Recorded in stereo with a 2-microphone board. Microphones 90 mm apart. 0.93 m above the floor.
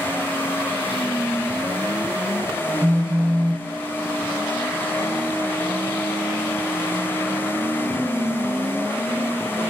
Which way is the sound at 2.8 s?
35° right (ahead or behind).